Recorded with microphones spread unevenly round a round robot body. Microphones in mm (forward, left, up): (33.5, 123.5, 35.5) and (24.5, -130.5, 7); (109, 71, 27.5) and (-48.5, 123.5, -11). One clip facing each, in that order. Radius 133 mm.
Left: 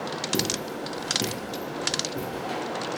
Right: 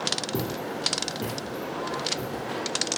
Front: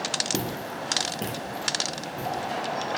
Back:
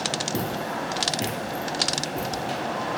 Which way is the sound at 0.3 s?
30° left.